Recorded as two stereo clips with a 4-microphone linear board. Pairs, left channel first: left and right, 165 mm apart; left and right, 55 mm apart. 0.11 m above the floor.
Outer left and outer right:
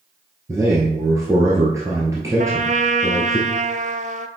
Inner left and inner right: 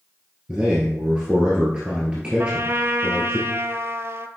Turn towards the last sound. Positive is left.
turn(degrees=-50)  # may be behind; listen again after turning